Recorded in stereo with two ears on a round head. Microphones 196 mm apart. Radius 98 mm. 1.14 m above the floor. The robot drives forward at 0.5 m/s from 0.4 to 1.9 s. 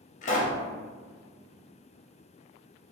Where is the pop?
35° left (ahead or behind), 0.6 m.